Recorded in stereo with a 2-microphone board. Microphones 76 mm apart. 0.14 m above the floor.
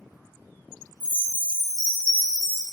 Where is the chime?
15° right (ahead or behind), 0.8 m.